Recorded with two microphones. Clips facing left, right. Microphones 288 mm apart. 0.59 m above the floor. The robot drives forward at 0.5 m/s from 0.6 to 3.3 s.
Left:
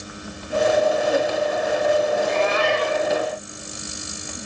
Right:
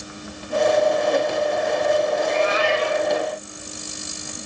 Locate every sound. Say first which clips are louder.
2.1 s a cat meowing: even; 60° left (ahead or behind), 1.8 m; by 3.1 s 50° left (ahead or behind), 2 m